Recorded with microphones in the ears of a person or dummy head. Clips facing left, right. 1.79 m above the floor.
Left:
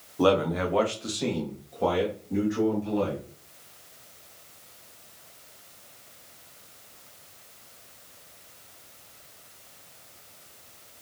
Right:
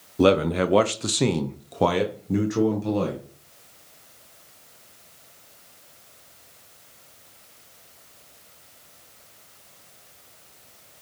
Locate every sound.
0.2 s a man speaking: 25° right (ahead or behind), 0.9 m; by 3.2 s 65° right (ahead or behind), 1.8 m